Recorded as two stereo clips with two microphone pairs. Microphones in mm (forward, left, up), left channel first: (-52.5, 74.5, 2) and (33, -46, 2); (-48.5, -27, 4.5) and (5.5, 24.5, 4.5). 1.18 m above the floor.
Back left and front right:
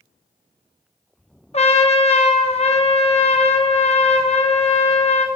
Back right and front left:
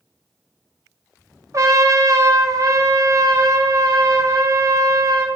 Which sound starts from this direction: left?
A trumpet, at 1.5 s.